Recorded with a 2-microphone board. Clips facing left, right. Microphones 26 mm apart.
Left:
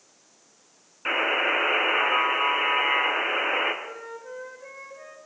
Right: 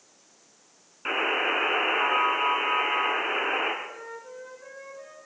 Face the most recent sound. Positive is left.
turn(degrees=5)  # may be behind; listen again after turning